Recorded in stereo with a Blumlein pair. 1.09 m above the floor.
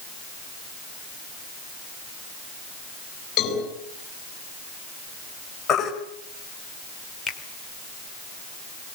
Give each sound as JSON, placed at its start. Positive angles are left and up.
{"t": 3.4, "sound": "a cowbell", "azimuth_deg": 35, "distance_m": 7.5}
{"t": 5.7, "sound": "a baby crying", "azimuth_deg": 25, "distance_m": 4.5}
{"t": 7.3, "sound": "a finger snap", "azimuth_deg": 10, "distance_m": 2.5}